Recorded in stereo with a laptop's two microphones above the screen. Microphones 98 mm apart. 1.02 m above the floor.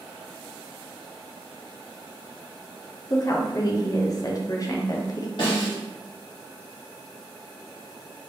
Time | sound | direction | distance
3.1 | a woman speaking | 40° left (ahead or behind) | 0.5 m
5.4 | a snare drum | 60° left (ahead or behind) | 1.4 m